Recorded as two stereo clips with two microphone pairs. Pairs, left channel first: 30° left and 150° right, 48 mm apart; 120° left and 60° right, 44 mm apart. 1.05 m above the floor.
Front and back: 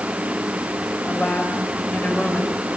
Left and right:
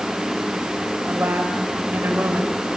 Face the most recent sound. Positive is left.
turn(degrees=-25)